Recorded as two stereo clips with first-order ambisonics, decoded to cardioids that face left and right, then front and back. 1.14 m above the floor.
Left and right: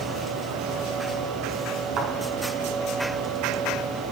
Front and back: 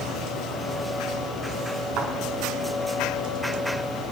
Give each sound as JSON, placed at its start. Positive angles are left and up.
{"t": 2.0, "sound": "a thud", "azimuth_deg": -135, "distance_m": 5.5}